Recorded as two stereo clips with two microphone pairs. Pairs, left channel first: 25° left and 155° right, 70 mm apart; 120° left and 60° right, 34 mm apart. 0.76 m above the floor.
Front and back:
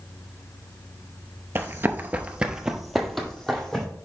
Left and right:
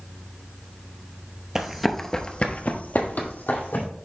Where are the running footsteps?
120° right, 0.9 m; by 3.9 s 110° left, 2 m.